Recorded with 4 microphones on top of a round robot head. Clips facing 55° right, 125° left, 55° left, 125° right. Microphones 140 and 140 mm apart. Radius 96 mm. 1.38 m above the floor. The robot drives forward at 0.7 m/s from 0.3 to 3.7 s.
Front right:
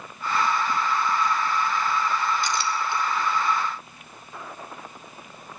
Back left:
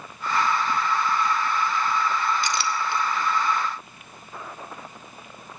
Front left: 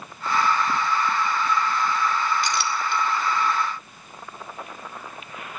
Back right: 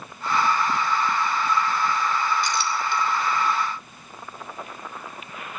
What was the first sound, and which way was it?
A clink, 90° left.